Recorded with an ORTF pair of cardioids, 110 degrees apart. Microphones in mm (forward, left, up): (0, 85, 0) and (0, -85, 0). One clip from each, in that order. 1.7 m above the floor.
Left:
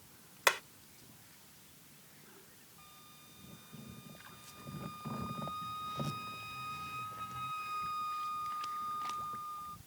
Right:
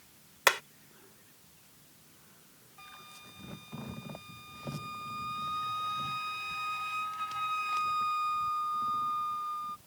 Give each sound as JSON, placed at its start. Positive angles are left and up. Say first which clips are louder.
{"t": 0.5, "sound": "hammering", "louder": "right 4 dB", "azimuth_deg": -25}
{"t": 2.8, "sound": "a flute", "louder": "right 10 dB", "azimuth_deg": -50}